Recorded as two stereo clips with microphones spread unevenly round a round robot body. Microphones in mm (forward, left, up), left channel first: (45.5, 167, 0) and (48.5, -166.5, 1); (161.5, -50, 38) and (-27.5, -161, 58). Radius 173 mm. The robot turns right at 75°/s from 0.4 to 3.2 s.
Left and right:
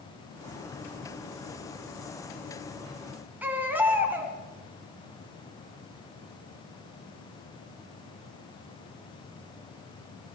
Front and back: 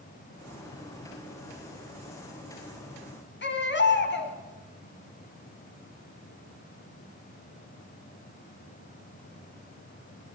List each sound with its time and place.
3.4 s a baby crying: 5° right, 3.5 m